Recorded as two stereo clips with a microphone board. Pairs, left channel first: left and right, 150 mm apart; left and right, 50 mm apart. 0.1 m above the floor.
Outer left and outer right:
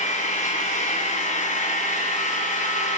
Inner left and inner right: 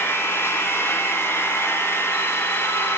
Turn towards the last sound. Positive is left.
turn(degrees=55)  # may be behind; listen again after turning